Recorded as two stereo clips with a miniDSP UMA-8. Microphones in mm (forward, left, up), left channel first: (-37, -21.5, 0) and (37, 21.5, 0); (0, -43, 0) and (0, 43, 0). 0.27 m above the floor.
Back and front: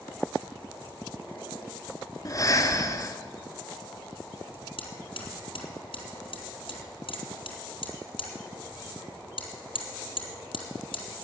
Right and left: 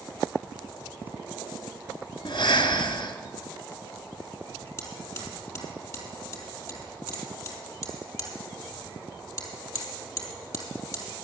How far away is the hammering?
About 4 m.